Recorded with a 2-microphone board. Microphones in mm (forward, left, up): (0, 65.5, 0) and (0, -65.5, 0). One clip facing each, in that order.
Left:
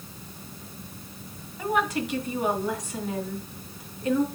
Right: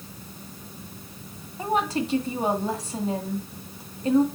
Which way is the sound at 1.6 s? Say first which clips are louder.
Right 1 dB; 30° right (ahead or behind).